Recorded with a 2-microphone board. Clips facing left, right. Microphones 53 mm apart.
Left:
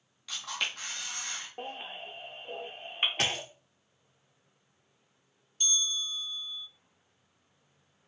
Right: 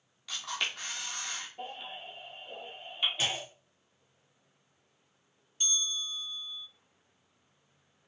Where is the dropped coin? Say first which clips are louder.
Left 2 dB; 75° left (ahead or behind), 0.5 m.